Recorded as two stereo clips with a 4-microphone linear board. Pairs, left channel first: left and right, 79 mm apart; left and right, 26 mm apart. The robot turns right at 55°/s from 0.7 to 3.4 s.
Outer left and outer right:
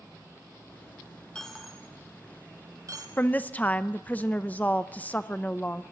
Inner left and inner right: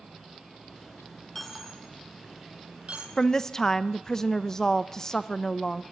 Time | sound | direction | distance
1.4 | a dropped coin | 10° left (ahead or behind) | 1.3 m
3.2 | a woman speaking | 25° left (ahead or behind) | 0.6 m